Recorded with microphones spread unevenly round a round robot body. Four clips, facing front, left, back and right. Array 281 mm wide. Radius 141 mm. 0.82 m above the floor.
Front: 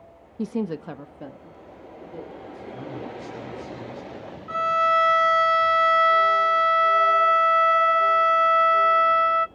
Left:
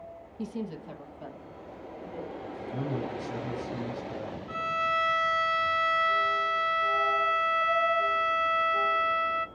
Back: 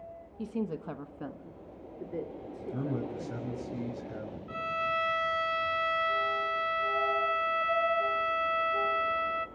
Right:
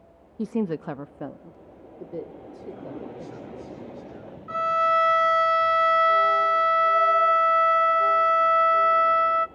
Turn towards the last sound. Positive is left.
turn(degrees=-30)